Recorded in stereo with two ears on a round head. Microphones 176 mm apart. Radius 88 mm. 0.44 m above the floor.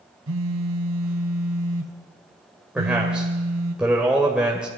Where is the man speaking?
5° right (ahead or behind), 2 m.